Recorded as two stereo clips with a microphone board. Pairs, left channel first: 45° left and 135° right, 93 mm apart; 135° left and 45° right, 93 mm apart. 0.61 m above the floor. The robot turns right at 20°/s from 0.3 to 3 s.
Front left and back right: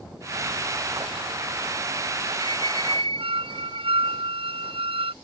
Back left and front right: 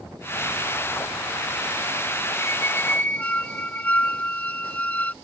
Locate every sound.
2.4 s a squeak: 165° right; by 5.1 s 150° right